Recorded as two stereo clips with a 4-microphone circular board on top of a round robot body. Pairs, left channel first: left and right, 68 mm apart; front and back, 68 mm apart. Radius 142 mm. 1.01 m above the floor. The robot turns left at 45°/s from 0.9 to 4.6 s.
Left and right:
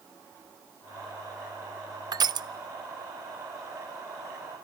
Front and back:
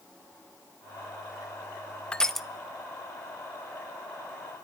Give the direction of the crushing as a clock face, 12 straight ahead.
3 o'clock.